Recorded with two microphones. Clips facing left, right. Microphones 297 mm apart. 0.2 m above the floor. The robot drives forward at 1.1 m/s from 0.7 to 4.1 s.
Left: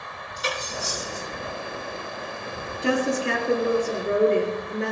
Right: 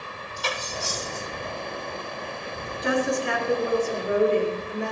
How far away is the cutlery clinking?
About 4.5 m.